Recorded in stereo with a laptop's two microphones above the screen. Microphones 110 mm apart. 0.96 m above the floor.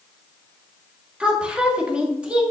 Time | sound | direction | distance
1.2 | a woman speaking | 10° right (ahead or behind) | 1.8 m